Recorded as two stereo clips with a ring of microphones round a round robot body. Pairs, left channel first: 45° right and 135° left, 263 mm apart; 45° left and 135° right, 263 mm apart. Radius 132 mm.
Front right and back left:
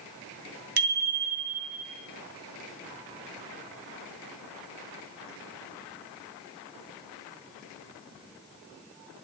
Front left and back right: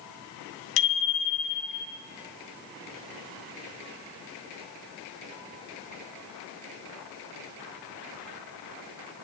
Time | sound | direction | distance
0.8 | a bicycle bell | 85° left | 2.5 m